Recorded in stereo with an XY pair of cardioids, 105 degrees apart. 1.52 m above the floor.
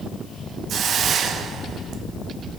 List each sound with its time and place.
0.7 s a hiss: 60° right, 0.9 m